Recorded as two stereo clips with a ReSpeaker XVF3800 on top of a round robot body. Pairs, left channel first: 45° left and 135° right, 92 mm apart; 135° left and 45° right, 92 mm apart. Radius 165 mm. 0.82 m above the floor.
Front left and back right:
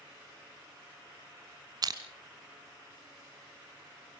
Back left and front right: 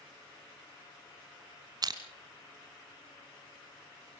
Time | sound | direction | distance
1.8 | crushing | 90° right | 1.7 m